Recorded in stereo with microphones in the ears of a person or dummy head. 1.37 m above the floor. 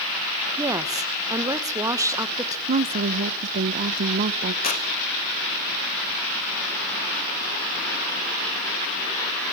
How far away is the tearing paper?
About 2.5 m.